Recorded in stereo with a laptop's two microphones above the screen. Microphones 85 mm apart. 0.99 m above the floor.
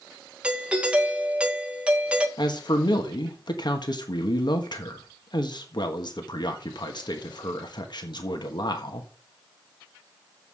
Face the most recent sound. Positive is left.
turn(degrees=60)  # may be behind; listen again after turning